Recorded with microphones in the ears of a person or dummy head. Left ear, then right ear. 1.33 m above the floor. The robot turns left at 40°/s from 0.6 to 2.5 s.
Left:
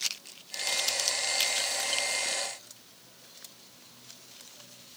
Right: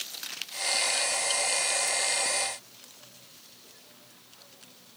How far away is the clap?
No clap in this recording.